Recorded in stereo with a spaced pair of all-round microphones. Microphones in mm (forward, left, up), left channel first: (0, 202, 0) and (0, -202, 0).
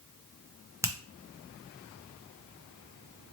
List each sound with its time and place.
0.8 s a finger snap: 5° right (ahead or behind), 0.7 m